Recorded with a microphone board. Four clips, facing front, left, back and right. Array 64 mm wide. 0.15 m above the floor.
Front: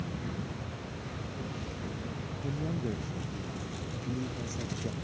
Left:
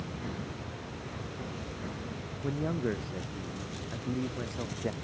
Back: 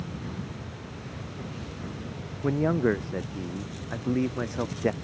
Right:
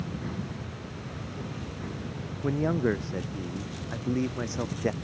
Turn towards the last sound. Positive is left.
turn(degrees=-160)